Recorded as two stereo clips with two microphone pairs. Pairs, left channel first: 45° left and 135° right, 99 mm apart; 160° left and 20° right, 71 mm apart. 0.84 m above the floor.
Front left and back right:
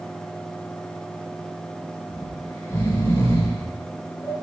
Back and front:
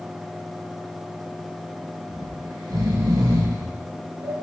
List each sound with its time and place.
2.1 s snoring: 15° right, 2.5 m